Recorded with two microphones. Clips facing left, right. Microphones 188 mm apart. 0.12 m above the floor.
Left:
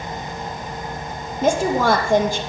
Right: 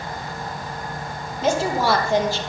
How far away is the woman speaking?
About 3.5 m.